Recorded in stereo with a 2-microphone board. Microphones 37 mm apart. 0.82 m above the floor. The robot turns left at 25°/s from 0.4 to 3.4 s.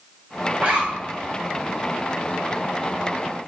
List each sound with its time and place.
0.6 s a zipper: 45° right (ahead or behind), 1.7 m; by 1.2 s 30° right (ahead or behind), 1.7 m